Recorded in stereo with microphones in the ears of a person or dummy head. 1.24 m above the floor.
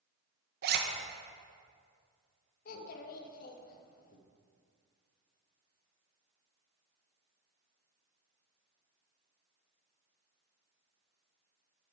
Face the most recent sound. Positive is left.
turn(degrees=50)  # may be behind; listen again after turning